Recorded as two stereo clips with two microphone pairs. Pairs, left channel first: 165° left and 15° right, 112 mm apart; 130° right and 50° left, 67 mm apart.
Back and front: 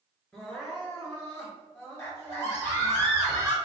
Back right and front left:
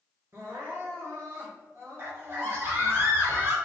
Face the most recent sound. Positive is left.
turn(degrees=100)